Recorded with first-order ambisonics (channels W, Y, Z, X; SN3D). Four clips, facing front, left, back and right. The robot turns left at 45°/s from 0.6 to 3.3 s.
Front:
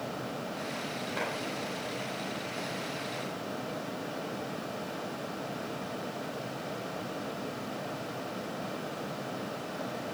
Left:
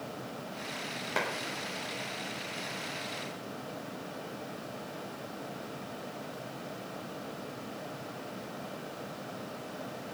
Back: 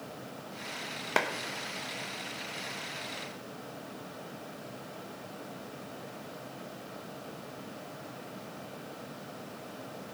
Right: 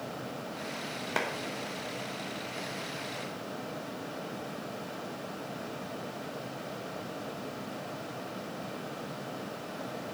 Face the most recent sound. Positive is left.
turn(degrees=95)